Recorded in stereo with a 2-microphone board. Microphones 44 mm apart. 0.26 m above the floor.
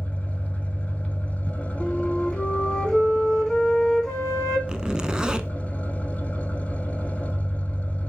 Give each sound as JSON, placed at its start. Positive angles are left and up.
{"t": 0.0, "sound": "an engine running", "side_deg": 30, "distance_m": 1.1}
{"t": 1.8, "sound": "a flute", "side_deg": 10, "distance_m": 2.0}
{"t": 4.7, "sound": "a zipper", "side_deg": -20, "distance_m": 0.6}